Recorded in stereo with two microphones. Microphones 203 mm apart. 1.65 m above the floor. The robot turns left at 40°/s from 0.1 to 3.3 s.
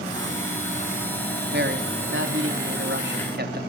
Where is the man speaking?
55° right, 3 m; by 3.6 s 125° right, 3 m.